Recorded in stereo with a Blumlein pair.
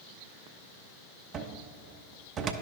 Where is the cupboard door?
25° right, 0.5 m.